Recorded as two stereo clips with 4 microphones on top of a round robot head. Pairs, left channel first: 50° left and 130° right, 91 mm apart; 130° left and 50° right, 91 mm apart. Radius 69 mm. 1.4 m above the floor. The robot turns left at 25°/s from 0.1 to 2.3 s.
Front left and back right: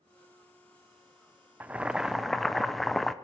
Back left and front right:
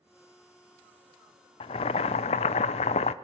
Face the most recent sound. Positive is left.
turn(degrees=140)